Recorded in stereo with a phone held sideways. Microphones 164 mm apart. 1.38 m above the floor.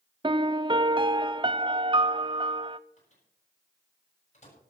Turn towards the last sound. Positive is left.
turn(degrees=45)  # may be behind; listen again after turning